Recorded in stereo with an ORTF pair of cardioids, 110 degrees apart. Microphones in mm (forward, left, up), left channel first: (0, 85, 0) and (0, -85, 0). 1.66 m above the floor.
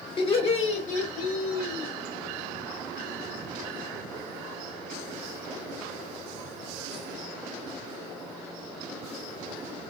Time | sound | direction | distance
0.2 | laughter | 35° left | 1.5 m